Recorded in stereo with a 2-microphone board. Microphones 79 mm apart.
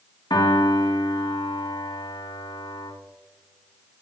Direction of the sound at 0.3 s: 60° left (ahead or behind).